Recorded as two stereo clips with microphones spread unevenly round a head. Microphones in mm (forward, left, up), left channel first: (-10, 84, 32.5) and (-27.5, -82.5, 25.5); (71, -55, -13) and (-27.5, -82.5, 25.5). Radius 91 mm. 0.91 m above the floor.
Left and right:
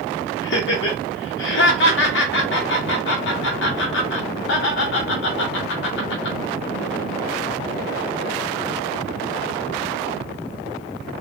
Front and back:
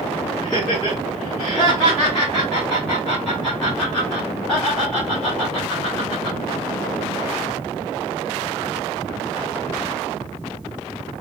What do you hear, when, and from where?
0.4 s laughter: 95° left, 0.8 m